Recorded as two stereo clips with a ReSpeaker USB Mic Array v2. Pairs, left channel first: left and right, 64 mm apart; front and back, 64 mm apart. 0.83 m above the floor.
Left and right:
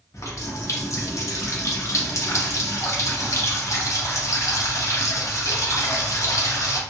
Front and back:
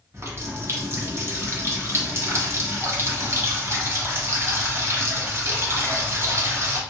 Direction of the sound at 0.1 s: 130° left.